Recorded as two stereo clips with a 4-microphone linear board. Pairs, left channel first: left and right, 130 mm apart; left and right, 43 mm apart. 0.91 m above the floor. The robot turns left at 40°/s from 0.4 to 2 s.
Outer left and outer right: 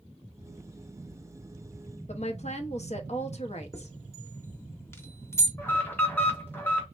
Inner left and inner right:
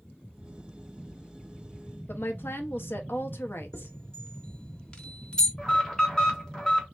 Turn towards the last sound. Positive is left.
turn(degrees=15)  # may be behind; listen again after turning